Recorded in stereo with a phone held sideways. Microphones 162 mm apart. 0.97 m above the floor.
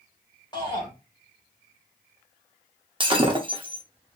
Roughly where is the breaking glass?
Right.